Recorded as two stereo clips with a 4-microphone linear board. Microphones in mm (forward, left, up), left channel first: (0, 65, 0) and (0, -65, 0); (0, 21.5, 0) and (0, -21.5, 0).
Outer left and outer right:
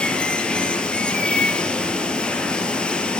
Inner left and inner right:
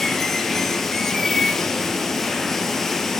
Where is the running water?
5° left (ahead or behind), 1.1 m.